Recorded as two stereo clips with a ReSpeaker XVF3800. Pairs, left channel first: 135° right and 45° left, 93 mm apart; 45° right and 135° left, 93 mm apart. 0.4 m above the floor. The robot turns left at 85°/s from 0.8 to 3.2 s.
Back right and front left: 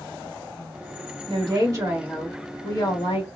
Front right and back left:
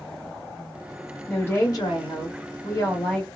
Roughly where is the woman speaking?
Ahead left.